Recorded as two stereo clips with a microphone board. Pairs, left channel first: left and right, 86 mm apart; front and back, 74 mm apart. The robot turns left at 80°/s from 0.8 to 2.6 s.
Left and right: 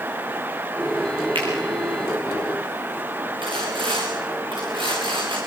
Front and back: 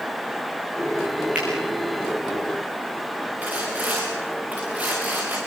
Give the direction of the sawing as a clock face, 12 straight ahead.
4 o'clock.